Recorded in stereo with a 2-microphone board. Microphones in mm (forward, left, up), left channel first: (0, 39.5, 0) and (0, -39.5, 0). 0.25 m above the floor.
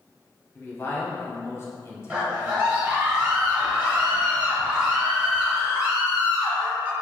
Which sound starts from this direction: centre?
A scream, at 2.1 s.